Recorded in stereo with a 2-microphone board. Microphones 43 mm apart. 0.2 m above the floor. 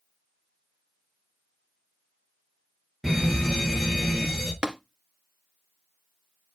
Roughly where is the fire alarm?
Centre.